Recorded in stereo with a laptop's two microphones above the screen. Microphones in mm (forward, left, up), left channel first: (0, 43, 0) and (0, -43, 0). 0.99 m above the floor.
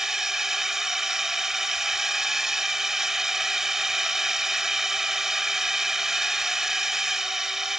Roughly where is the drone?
Centre.